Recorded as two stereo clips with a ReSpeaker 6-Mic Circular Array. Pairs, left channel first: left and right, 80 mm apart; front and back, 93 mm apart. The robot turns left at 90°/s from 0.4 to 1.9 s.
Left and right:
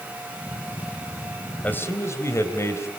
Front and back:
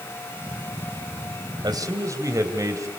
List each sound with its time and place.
1.6 s a man speaking: 155° left, 2.5 m; by 2.9 s 135° left, 2.5 m